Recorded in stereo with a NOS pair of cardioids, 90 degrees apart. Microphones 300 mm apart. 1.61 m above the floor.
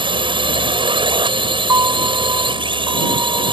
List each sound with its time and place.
0.0 s a drone: 15° right
1.7 s a piano: 10° right